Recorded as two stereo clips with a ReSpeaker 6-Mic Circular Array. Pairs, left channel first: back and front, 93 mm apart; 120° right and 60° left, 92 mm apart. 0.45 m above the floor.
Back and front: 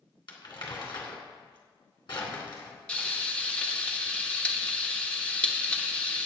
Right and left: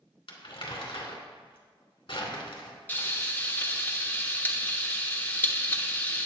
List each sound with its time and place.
0.3 s crumpling: 145° right, 2.5 m
2.9 s frying: 130° right, 1.1 m